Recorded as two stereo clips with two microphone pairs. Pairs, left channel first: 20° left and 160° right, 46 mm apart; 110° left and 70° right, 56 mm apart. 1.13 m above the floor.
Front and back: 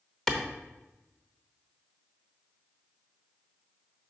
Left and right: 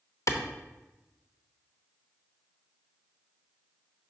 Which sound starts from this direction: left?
A clap, at 0.3 s.